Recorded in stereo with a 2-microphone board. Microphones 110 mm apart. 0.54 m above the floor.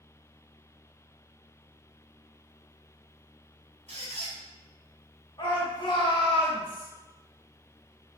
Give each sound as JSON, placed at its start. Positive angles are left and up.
{"t": 3.9, "sound": "a squeak", "side_deg": -75, "distance_m": 0.9}
{"t": 5.4, "sound": "a shout", "side_deg": 40, "distance_m": 1.0}